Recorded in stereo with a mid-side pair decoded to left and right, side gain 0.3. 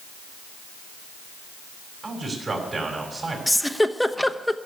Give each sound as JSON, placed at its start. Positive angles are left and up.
{"t": 2.0, "sound": "a man speaking", "azimuth_deg": -50, "distance_m": 5.5}
{"t": 3.5, "sound": "a giggle", "azimuth_deg": 10, "distance_m": 0.9}